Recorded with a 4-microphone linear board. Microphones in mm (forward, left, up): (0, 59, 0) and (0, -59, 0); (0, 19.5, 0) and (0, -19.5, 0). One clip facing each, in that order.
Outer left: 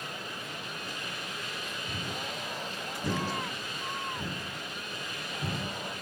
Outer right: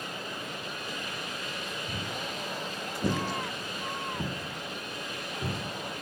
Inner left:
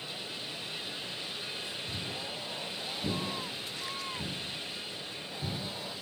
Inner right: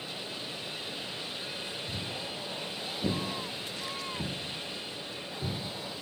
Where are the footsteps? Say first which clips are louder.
Outer right 1 dB, inner right 1 dB; 5° right (ahead or behind), 1.1 m; by 5.6 s 55° right (ahead or behind), 1.7 m.